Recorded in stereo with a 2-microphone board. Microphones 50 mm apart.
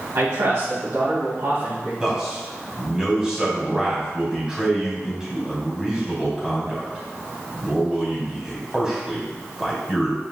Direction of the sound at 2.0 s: 10° right (ahead or behind).